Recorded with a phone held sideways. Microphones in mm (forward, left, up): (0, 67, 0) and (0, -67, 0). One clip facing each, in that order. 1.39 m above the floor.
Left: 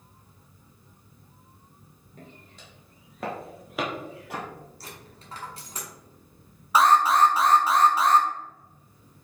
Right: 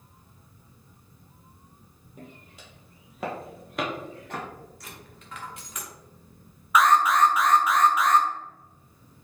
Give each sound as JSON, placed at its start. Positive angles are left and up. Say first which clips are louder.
{"t": 2.2, "sound": "footsteps", "louder": "right 2 dB", "side_deg": -10, "distance_m": 1.8}
{"t": 4.8, "sound": "a dropped coin", "louder": "left 1 dB", "side_deg": 35, "distance_m": 1.1}
{"t": 6.8, "sound": "an alarm", "louder": "left 1 dB", "side_deg": 30, "distance_m": 0.5}